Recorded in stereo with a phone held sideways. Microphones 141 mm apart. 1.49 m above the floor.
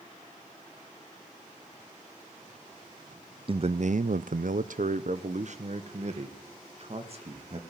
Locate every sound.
3.5 s a man speaking: 40° right (ahead or behind), 0.6 m; by 7.6 s 45° right (ahead or behind), 2.5 m